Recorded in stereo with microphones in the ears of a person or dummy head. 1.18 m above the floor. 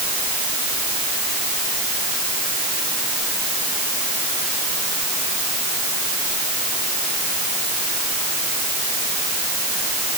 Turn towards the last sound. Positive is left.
No sound to turn to.